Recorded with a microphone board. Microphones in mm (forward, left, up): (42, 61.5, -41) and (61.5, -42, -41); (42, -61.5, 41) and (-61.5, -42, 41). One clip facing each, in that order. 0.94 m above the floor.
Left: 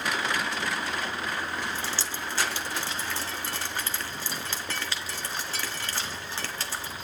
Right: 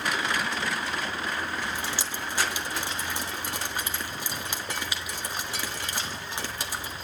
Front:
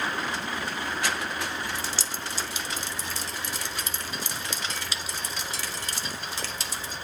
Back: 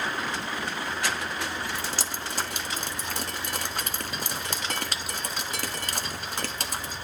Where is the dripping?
150° right, 1.4 m.